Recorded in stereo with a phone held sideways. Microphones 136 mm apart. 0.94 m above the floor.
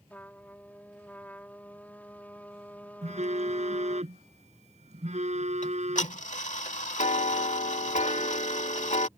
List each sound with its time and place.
0.1 s a trumpet: 15° left (ahead or behind)
3.0 s a phone buzzing: 65° right (ahead or behind)
5.6 s ticking: 70° left (ahead or behind)